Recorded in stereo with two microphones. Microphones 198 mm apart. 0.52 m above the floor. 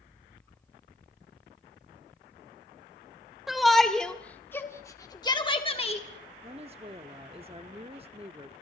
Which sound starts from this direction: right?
A woman speaking, at 6.4 s.